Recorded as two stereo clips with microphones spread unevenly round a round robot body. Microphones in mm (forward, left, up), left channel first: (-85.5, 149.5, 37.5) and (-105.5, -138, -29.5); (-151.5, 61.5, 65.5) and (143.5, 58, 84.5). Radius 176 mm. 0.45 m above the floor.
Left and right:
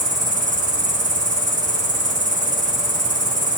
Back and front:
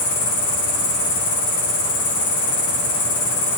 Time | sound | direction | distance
0.0 | an insect | 160° right | 2.5 m